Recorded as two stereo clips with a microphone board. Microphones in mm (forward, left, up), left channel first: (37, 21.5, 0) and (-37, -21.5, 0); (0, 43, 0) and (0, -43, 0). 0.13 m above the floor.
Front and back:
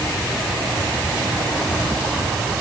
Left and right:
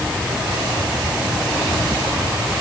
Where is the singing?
No singing in this recording.